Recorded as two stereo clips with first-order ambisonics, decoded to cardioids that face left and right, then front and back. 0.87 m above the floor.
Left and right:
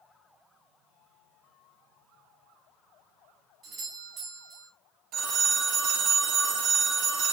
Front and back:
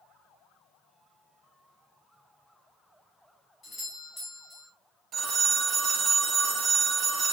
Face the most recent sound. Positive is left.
turn(degrees=-125)